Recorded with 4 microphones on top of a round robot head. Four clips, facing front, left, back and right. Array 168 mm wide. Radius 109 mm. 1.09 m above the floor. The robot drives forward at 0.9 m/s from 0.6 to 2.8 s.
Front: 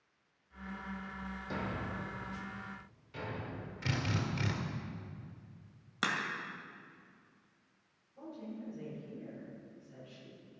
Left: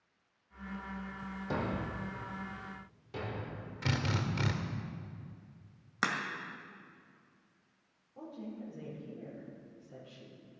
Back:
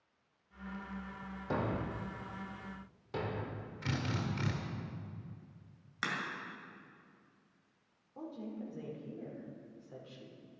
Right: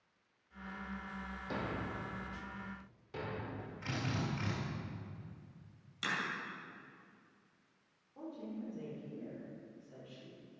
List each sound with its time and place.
1.5 s a thud: 150° left, 0.5 m; by 3.7 s 175° left, 1.5 m
3.8 s a drill: 85° left, 1.8 m
6.0 s a crack: 60° left, 1.8 m
8.2 s a woman speaking: straight behind, 4.5 m